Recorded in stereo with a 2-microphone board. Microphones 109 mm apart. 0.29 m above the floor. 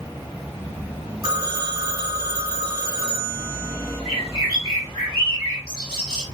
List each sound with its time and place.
1.2 s a phone ringing: 35° right (ahead or behind), 2 m
4.0 s a bird: 45° right (ahead or behind), 3 m